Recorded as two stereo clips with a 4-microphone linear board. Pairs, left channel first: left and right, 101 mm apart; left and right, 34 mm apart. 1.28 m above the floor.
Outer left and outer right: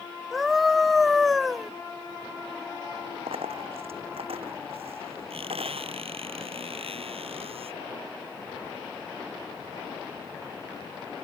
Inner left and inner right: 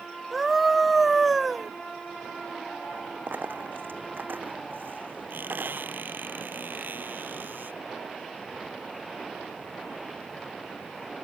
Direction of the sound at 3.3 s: 85° right.